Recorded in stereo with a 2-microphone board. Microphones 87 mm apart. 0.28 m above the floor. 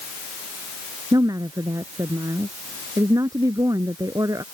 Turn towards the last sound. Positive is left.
turn(degrees=-45)  # may be behind; listen again after turning